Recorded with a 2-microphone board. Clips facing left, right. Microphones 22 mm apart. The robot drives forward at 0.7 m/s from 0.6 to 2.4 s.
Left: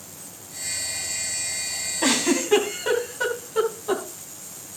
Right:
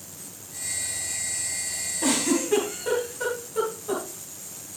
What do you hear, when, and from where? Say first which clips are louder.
2.0 s a giggle: left 2 dB; 40° left (ahead or behind), 3.5 m; by 4.0 s 35° left (ahead or behind), 3.5 m